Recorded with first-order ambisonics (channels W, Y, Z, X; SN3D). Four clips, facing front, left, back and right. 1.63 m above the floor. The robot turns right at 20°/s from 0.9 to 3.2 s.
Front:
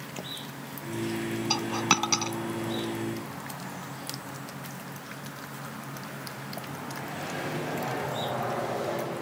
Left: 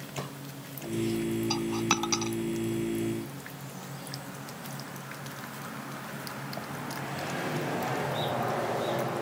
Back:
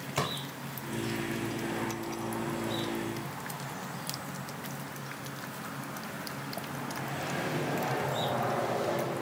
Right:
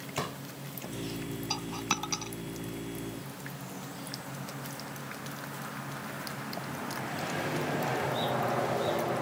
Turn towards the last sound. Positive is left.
turn(degrees=40)